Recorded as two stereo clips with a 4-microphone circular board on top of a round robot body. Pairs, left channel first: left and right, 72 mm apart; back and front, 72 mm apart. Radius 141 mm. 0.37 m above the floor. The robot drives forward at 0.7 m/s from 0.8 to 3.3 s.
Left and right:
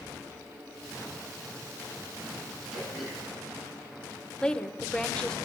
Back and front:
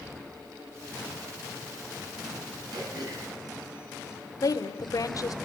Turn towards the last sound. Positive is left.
turn(degrees=165)